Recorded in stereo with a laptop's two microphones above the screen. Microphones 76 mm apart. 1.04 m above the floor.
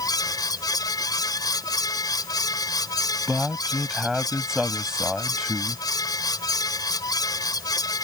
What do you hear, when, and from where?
0.0 s a fan: 60° left (ahead or behind)
3.3 s a man speaking: 5° right (ahead or behind)